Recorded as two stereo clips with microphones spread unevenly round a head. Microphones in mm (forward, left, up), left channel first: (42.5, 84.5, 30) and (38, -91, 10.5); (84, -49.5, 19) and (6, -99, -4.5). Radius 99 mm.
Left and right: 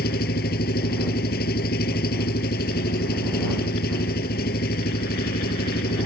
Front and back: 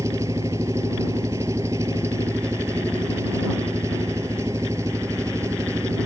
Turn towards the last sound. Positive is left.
turn(degrees=135)